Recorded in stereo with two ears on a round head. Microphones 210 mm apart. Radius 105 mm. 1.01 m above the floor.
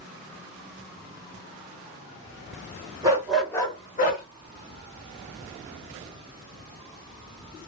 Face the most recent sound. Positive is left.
turn(degrees=40)  # may be behind; listen again after turning